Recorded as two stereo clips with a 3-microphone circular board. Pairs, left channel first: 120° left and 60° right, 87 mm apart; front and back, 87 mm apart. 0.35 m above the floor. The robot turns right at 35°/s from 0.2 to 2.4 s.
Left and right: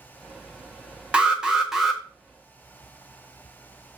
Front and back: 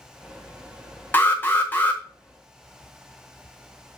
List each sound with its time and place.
1.1 s an alarm: 5° right, 0.6 m; by 2.0 s 25° left, 0.6 m